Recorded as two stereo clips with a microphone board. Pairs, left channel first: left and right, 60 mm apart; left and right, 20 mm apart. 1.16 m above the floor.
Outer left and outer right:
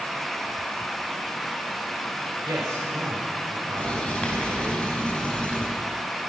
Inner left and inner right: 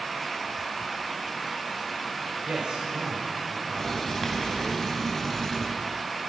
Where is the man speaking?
75° right (ahead or behind), 5.5 m.